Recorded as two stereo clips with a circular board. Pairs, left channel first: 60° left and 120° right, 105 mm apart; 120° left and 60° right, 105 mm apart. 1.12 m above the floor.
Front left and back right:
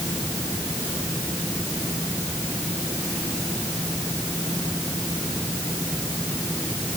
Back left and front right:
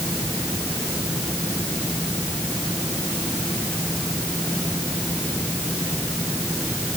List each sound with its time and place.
Only background noise.